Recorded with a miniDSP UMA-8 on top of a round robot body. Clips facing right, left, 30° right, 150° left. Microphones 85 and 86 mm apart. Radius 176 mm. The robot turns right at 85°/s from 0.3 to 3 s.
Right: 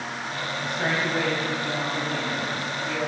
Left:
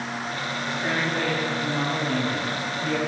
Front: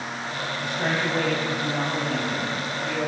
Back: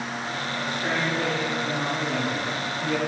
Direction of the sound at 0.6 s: 70° right.